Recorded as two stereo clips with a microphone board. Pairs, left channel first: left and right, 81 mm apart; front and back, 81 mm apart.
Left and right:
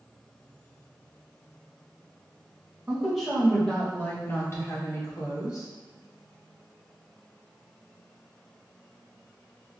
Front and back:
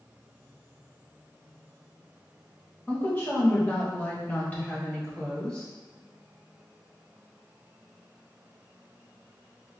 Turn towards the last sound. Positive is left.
turn(degrees=75)